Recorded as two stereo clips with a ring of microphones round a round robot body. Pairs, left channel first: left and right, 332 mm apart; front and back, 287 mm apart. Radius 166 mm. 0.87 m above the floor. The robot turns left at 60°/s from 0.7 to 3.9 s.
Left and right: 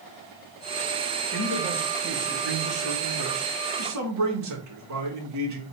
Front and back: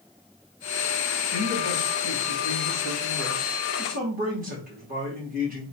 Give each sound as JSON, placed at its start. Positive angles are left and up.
{"t": 1.3, "sound": "a man speaking", "azimuth_deg": 35, "distance_m": 1.8}